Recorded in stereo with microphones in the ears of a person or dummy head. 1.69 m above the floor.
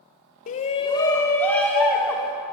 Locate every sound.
0.5 s a shout: 50° left (ahead or behind), 0.6 m; by 2.3 s centre (ahead or behind), 1.4 m